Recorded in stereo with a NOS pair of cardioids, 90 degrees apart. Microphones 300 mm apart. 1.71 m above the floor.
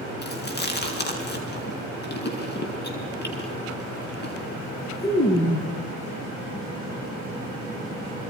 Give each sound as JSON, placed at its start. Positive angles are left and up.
{"t": 0.2, "sound": "chewing", "azimuth_deg": 35, "distance_m": 6.5}